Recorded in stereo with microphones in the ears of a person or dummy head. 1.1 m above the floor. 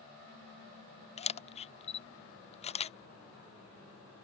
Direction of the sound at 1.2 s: 25° left (ahead or behind).